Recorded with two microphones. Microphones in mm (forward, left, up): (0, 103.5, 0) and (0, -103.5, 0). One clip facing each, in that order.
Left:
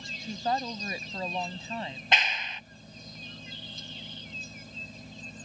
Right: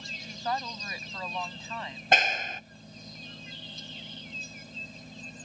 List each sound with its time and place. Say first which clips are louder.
0.2 s a woman speaking: left 3 dB; 30° left (ahead or behind)
2.1 s a clap: right 7 dB; 50° right (ahead or behind)